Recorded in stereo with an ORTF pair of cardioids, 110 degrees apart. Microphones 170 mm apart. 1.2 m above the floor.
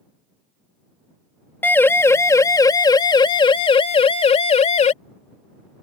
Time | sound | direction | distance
1.6 | a siren | 10° left | ?